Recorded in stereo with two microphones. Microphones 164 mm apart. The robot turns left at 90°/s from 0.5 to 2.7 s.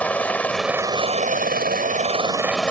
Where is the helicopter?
10° left (ahead or behind); by 2.7 s 5° left (ahead or behind).